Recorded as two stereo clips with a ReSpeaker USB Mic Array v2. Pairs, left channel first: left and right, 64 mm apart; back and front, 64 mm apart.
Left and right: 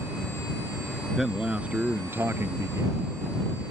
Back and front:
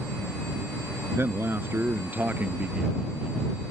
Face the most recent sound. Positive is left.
turn(degrees=-75)